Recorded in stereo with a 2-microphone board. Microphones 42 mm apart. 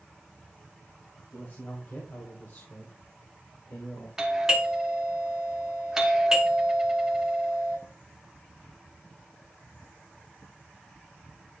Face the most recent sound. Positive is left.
turn(degrees=-15)  # may be behind; listen again after turning